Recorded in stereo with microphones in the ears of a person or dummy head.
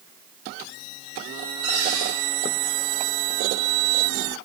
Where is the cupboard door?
85° right, 1.9 m.